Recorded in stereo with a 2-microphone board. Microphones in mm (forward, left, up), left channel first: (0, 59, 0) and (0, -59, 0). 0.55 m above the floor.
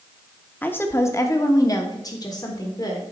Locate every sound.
0.6 s a woman speaking: 15° left (ahead or behind), 0.8 m; by 3.0 s 35° left (ahead or behind), 1.6 m